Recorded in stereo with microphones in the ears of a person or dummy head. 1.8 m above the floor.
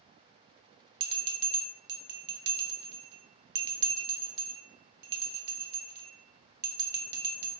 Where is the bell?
50° right (ahead or behind), 0.7 m.